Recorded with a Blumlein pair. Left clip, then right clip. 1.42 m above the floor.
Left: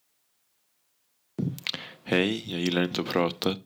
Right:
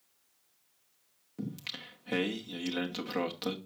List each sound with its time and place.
1.4 s singing: 30° left, 0.5 m